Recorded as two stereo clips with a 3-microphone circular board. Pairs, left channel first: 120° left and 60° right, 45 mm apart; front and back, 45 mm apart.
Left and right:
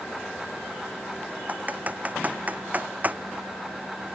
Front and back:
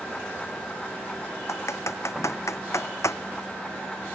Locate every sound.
1.5 s typing on a keyboard: 5° right